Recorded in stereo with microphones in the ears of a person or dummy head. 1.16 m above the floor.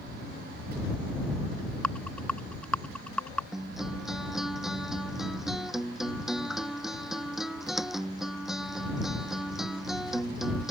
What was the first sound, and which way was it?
A rattle, 15° left (ahead or behind).